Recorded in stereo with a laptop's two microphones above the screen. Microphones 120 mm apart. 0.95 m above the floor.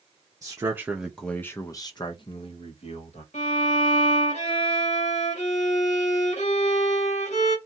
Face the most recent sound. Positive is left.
turn(degrees=70)  # may be behind; listen again after turning